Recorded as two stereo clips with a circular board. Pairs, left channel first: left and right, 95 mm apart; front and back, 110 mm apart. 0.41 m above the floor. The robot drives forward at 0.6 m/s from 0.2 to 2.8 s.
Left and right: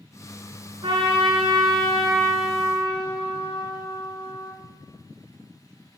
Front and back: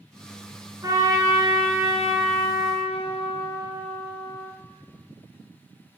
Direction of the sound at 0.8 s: 120° right.